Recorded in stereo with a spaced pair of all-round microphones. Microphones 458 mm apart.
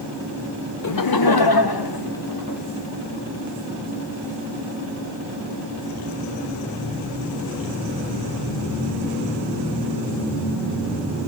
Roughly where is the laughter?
Left.